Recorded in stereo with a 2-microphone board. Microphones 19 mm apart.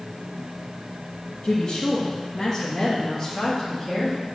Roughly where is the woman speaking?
Left.